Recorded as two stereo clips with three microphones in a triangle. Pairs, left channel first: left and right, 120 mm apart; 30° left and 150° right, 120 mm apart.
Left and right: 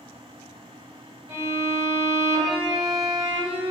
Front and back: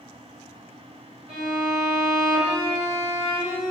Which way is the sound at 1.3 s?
130° right.